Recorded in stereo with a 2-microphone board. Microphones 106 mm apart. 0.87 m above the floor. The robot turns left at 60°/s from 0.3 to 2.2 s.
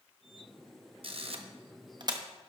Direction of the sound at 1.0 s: 55° right (ahead or behind).